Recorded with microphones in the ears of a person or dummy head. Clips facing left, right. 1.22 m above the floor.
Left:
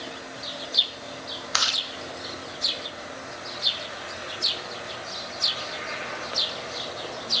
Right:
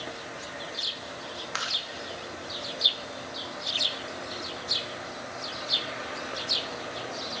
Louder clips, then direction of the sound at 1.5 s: Left 3 dB; 55° left (ahead or behind).